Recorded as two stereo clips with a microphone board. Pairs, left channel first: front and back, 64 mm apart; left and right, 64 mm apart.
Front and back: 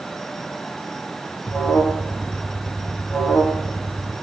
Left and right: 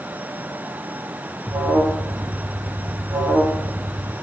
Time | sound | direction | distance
1.5 | an alarm | 65° right | 1.7 m